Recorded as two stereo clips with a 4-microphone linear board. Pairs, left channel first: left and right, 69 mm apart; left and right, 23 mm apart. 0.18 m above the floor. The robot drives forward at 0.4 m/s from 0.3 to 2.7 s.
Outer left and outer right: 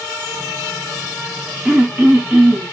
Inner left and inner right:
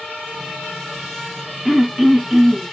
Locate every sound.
1.6 s throat clearing: 10° right (ahead or behind), 1.3 m